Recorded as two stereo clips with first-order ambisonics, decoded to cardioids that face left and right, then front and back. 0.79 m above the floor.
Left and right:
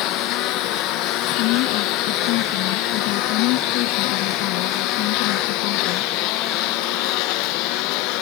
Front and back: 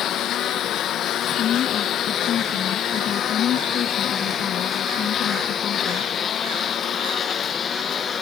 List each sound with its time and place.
0.0 s a lawn mower: 55° left; by 8.2 s 70° left
1.4 s a woman speaking: 60° left